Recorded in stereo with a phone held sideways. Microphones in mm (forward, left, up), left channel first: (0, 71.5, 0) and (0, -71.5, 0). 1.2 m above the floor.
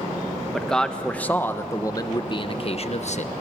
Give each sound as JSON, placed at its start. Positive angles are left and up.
{"t": 0.5, "sound": "a man speaking", "side_deg": 0, "distance_m": 1.5}